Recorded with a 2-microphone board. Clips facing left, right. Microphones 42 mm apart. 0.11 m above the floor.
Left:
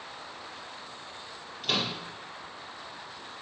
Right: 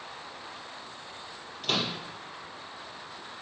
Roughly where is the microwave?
Centre.